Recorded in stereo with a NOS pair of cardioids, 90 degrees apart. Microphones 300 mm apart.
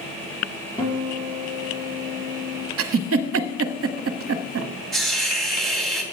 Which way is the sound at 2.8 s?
55° right.